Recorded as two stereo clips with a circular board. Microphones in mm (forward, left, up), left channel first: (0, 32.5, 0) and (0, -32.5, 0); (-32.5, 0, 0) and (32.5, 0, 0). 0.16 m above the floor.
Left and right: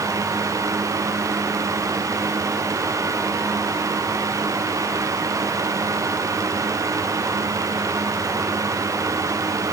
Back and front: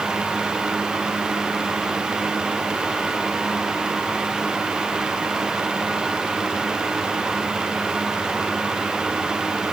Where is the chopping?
I don't hear chopping.